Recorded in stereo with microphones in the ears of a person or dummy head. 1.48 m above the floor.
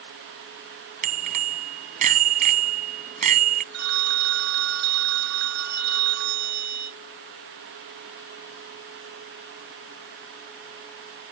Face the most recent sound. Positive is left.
turn(degrees=-50)  # may be behind; listen again after turning